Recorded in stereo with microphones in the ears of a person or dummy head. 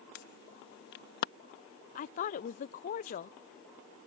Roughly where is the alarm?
Left.